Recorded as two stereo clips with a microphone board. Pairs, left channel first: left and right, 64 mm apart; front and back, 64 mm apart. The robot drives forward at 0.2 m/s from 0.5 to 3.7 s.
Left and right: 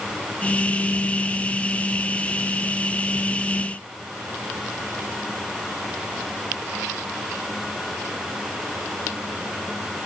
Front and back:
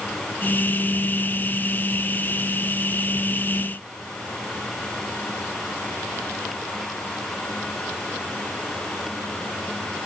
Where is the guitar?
No guitar in this recording.